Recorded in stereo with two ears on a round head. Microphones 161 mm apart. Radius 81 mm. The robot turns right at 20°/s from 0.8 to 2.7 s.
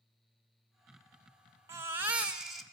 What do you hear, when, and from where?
1.7 s a baby crying: 15° right (ahead or behind), 1.2 m; by 2.6 s centre (ahead or behind), 1.2 m